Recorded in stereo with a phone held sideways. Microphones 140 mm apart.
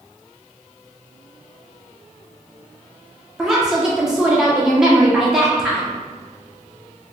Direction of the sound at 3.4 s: 5° right (ahead or behind).